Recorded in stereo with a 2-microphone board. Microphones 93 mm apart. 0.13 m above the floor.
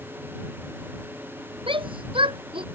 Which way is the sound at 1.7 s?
70° right (ahead or behind).